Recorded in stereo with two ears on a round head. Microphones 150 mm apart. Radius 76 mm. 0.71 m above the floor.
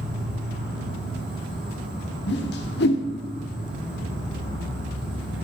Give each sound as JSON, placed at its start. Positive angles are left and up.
{"t": 0.0, "sound": "an insect", "side_deg": -5, "distance_m": 4.5}
{"t": 2.3, "sound": "a whoosh", "side_deg": 65, "distance_m": 1.5}